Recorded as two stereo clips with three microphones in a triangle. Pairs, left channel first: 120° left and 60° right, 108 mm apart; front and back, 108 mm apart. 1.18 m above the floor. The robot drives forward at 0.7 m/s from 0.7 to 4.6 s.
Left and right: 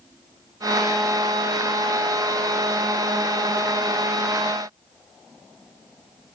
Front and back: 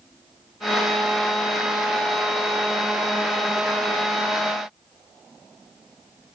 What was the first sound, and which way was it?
Only background noise.